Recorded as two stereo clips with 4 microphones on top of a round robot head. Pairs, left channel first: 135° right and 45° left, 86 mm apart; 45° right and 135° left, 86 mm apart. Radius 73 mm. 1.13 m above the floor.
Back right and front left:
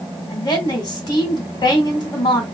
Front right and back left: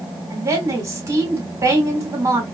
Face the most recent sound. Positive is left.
turn(degrees=-170)